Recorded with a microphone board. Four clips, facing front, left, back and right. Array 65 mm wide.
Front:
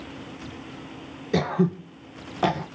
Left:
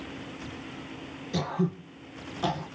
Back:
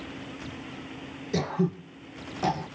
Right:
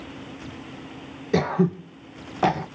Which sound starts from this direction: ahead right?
Throat clearing, at 1.3 s.